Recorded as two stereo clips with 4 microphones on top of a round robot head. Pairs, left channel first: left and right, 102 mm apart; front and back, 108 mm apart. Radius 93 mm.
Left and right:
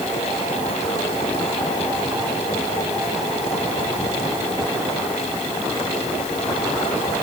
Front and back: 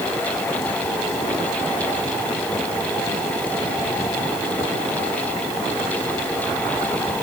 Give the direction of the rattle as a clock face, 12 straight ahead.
I don't hear a rattle.